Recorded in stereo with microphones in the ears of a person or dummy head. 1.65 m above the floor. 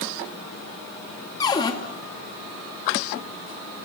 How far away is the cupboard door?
About 2.5 m.